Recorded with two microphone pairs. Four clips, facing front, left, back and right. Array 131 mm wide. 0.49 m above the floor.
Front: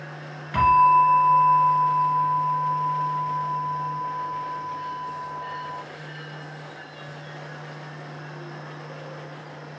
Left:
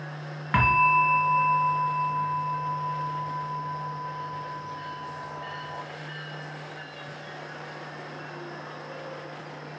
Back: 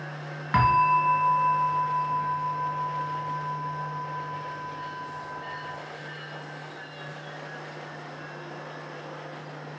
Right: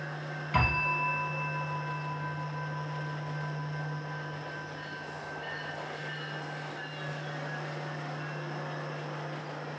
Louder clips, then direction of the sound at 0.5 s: Left 10 dB, front 5 dB; 130° left.